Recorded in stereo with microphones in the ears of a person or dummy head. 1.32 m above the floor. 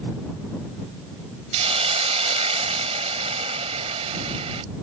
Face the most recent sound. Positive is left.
turn(degrees=-35)  # may be behind; listen again after turning